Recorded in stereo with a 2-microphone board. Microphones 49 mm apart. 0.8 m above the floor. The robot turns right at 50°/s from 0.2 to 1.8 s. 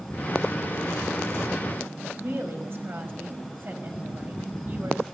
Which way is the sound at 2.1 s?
50° right (ahead or behind).